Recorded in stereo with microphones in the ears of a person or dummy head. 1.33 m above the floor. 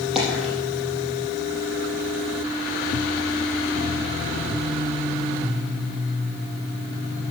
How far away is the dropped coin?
About 6 m.